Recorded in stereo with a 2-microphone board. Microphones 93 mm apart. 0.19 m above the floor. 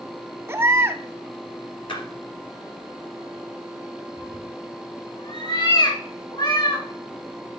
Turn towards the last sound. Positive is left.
turn(degrees=55)  # may be behind; listen again after turning